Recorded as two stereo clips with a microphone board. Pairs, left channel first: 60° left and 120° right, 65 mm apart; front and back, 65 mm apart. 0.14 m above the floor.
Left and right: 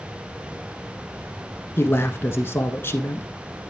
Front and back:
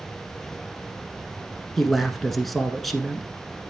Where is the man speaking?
90° left, 1.3 m.